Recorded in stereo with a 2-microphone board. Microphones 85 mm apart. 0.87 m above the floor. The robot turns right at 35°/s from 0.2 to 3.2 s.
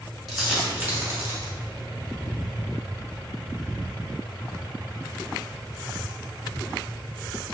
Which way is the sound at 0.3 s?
Centre (ahead or behind).